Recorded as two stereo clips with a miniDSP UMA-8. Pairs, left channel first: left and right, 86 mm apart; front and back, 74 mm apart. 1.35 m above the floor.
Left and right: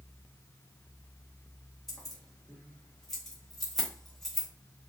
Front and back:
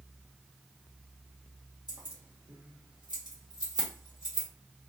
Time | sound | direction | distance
1.9 | keys jangling | 175° left | 1.3 m